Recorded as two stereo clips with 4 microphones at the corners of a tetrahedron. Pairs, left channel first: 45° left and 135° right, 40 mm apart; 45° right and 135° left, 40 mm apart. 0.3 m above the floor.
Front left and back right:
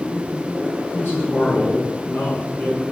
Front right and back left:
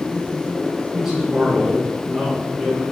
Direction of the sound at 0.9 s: 50° left.